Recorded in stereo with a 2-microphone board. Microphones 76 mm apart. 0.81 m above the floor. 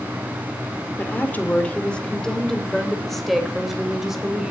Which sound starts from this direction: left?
A woman speaking, at 1.0 s.